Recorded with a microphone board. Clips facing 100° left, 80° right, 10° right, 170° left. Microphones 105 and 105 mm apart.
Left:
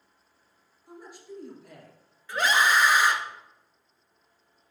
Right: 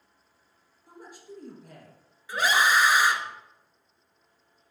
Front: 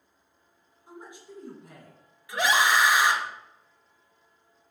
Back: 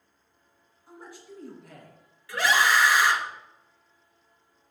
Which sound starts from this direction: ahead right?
A scream, at 2.3 s.